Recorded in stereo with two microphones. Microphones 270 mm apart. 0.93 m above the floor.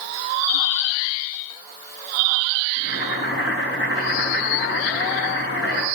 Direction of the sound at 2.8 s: 45° left (ahead or behind).